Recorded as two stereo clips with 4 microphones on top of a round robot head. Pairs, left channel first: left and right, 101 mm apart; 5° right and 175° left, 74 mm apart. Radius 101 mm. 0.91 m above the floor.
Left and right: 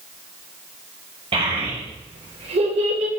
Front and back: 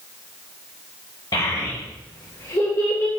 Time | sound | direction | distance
1.3 | a child speaking | 50° right | 2.5 m